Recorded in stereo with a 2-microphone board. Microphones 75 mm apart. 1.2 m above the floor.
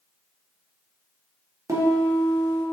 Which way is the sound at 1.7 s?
50° right (ahead or behind).